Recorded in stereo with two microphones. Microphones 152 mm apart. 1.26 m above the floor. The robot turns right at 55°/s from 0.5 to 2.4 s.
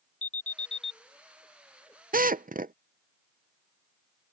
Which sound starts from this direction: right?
A drill, at 2.1 s.